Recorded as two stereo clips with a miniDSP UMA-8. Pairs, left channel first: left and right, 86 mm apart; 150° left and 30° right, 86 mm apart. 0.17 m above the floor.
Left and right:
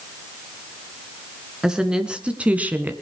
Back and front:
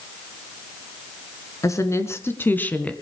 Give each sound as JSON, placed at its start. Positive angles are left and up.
{"t": 1.6, "sound": "a woman speaking", "azimuth_deg": -170, "distance_m": 2.0}